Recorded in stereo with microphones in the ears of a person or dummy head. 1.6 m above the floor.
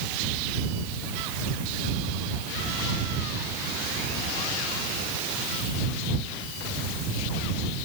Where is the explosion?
No explosion in this recording.